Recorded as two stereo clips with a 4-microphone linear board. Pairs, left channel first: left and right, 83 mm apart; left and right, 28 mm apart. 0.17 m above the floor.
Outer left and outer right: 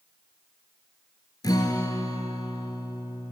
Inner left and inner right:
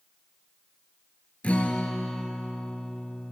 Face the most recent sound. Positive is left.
turn(degrees=50)  # may be behind; listen again after turning